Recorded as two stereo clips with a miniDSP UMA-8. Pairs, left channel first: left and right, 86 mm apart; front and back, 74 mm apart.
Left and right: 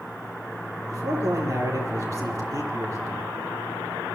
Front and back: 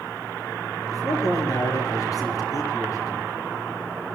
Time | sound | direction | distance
0.9 | a man speaking | 40° right | 7 m